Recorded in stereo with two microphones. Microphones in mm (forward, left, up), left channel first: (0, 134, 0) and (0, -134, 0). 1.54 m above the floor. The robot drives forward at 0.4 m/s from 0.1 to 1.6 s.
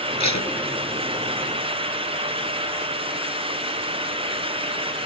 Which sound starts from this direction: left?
Tape being pulled, at 0.2 s.